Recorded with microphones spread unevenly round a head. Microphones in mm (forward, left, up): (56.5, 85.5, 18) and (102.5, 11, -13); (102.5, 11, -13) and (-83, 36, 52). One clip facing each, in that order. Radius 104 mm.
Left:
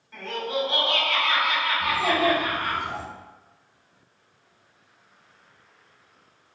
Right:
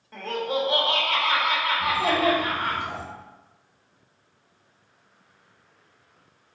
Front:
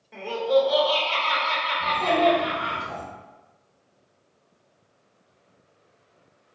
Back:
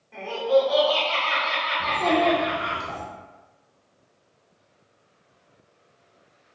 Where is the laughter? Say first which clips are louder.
Right 2 dB, back 1 dB; 55° right, 1.5 m.